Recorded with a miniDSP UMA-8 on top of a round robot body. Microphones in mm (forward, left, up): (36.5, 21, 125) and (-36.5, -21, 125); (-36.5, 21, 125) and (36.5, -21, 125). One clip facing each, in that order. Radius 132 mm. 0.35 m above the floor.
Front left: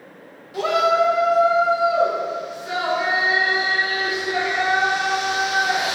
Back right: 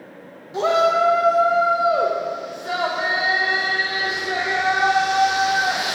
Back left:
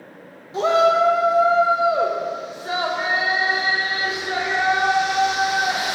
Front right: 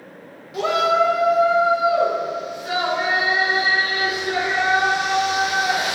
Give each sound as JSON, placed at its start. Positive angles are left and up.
{"t": 0.5, "sound": "a shout", "azimuth_deg": 170, "distance_m": 1.0}